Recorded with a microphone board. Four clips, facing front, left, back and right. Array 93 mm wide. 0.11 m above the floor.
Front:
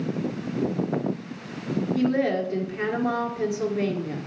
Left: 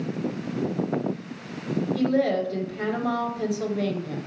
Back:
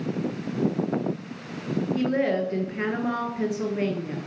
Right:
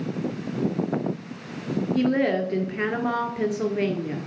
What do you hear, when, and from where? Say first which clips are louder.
1.9 s a woman speaking: right 1 dB, front 1 dB; 100° right, 1.4 m